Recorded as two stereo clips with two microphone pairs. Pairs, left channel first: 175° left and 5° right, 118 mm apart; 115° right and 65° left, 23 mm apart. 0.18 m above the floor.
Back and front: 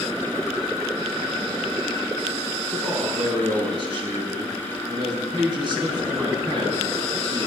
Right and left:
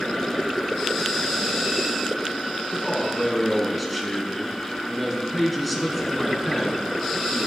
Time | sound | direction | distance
2.7 | a man speaking | 30° right | 1.7 m